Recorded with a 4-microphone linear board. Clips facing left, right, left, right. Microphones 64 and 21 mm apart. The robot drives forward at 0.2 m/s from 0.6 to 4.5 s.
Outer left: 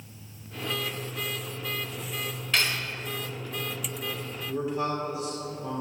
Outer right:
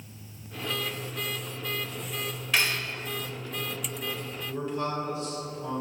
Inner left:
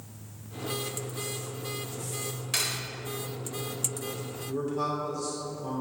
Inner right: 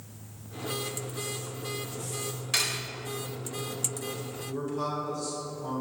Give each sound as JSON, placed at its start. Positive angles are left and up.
{"t": 2.5, "sound": "cutlery clinking", "side_deg": -5, "distance_m": 1.0}
{"t": 4.5, "sound": "a man speaking", "side_deg": 15, "distance_m": 1.6}